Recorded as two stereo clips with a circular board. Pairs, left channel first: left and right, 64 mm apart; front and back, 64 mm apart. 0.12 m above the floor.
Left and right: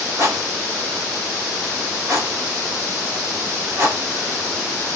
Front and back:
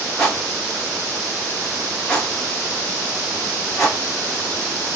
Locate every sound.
0.2 s a rattle: 85° right, 3 m